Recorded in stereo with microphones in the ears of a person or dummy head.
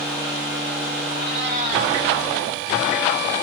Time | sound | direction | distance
1.1 | a cat meowing | 55° right (ahead or behind) | 2.5 m